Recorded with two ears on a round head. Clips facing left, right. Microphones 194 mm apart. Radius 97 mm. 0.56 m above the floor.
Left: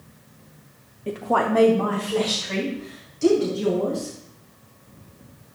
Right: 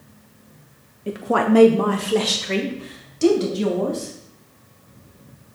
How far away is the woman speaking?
About 0.7 m.